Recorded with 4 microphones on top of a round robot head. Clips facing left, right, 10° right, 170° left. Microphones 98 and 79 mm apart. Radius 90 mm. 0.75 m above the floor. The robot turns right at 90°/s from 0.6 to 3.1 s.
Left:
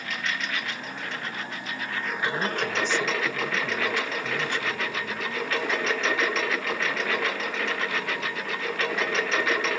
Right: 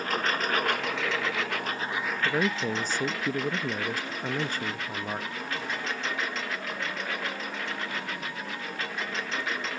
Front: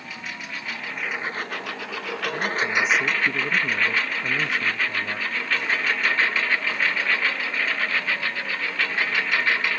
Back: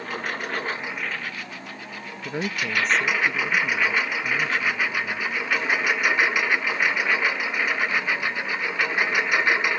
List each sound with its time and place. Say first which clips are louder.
0.0 s a lawn mower: right 4 dB, back 6 dB; 140° right; by 9.8 s 95° left
2.2 s a man speaking: right 1 dB, front 2 dB; 150° right; by 5.3 s 75° right